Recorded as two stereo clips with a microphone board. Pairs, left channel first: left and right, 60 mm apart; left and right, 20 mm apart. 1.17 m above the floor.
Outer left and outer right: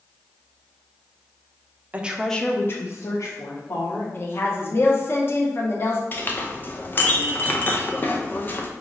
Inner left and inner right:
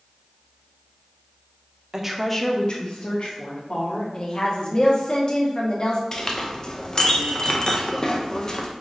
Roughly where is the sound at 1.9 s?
Right.